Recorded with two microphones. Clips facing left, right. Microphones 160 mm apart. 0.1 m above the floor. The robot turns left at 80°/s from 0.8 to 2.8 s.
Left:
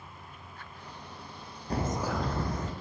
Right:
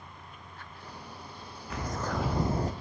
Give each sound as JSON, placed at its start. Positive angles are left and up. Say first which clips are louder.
{"t": 1.7, "sound": "a bird", "louder": "left 3 dB", "azimuth_deg": 40, "distance_m": 1.3}